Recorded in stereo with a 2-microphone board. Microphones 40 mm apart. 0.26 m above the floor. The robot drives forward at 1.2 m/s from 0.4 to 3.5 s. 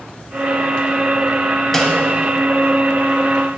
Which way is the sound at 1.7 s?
10° left (ahead or behind).